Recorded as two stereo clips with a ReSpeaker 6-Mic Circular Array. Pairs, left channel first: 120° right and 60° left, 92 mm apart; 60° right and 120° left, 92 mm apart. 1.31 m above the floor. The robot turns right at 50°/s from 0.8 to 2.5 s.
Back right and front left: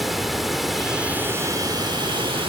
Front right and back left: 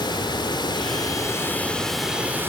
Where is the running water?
30° right; by 2.5 s 55° left.